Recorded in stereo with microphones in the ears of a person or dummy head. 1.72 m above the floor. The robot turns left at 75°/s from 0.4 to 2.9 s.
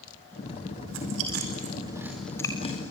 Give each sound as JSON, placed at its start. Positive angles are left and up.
{"t": 0.9, "sound": "chewing", "side_deg": -75, "distance_m": 4.5}